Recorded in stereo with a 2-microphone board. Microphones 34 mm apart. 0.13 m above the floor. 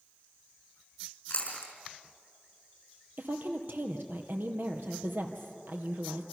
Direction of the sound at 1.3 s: 55° left (ahead or behind).